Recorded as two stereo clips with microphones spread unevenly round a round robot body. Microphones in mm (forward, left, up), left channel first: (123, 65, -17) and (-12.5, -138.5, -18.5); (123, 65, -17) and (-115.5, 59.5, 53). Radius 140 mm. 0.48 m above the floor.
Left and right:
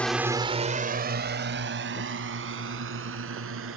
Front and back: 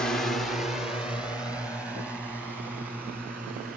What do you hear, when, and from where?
0.0 s a drone: 20° right; by 3.8 s 90° right